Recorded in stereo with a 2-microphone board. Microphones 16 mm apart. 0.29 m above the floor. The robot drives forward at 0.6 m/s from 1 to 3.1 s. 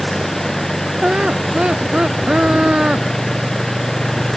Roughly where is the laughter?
Right.